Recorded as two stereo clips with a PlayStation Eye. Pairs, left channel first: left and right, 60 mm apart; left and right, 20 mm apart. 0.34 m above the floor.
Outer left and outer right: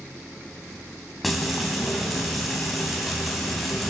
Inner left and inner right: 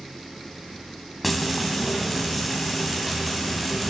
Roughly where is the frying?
Centre.